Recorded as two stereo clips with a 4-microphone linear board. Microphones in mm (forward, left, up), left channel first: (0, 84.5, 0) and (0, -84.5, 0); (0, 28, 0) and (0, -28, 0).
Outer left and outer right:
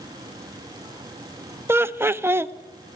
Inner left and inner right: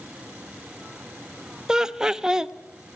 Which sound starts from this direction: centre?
Laughter, at 1.7 s.